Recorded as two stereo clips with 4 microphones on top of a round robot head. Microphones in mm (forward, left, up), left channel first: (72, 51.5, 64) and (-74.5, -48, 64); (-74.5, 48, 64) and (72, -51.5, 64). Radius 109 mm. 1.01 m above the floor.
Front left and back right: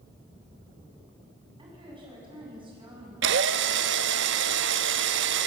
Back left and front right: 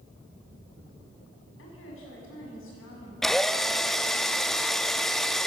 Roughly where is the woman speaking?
Behind left.